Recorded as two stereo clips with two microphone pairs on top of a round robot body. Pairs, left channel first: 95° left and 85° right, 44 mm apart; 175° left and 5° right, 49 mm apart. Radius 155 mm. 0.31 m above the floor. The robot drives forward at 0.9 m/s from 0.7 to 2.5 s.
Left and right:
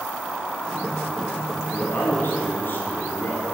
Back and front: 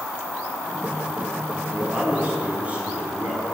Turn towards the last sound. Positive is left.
turn(degrees=55)